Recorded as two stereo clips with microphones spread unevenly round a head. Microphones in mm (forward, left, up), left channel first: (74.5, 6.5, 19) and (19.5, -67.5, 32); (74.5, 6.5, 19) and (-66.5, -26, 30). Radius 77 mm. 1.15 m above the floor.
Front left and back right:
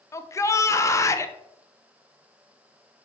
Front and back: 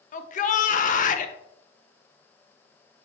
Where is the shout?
5° left, 0.9 m.